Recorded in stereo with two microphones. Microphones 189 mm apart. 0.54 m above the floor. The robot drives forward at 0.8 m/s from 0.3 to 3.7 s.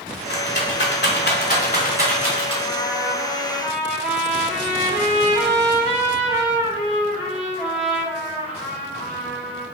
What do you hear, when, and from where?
0.3 s a rattle: 65° left (ahead or behind), 0.9 m; by 2.5 s 30° left (ahead or behind), 1.6 m
2.6 s a trumpet: 5° right (ahead or behind), 1.4 m